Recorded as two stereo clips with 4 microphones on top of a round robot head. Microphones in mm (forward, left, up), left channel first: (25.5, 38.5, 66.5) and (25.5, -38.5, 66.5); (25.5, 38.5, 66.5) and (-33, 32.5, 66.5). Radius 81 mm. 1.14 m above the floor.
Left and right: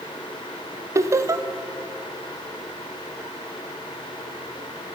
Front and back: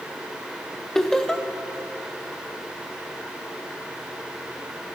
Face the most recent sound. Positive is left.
turn(degrees=-75)